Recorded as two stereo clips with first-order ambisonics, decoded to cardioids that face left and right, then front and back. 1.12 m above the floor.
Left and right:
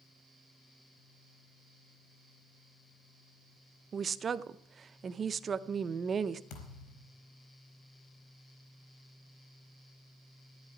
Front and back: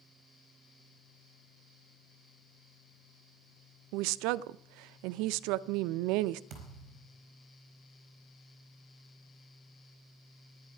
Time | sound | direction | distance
3.9 | a woman speaking | 160° right | 0.5 m
6.5 | a thud | 120° left | 4 m